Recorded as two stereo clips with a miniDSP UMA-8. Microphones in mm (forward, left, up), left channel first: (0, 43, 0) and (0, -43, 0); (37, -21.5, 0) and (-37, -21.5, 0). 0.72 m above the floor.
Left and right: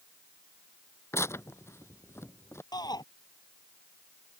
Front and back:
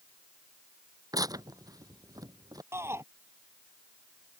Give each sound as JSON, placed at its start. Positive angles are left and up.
{"t": 1.1, "sound": "tearing paper", "azimuth_deg": 145}
{"t": 2.7, "sound": "a shout", "azimuth_deg": 125}